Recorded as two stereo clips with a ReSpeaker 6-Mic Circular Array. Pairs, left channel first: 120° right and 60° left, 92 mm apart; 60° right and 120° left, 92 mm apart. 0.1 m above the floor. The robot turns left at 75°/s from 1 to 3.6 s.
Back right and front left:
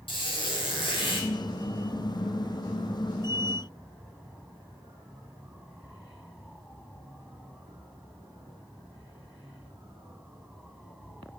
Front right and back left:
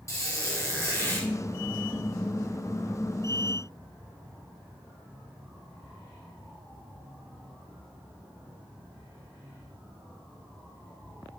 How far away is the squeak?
About 2 m.